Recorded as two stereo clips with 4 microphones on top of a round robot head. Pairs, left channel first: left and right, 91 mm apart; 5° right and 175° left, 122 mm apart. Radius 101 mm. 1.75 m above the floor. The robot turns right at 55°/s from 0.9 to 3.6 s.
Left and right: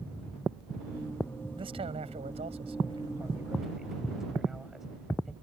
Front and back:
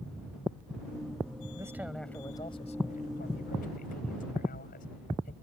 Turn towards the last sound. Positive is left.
turn(degrees=0)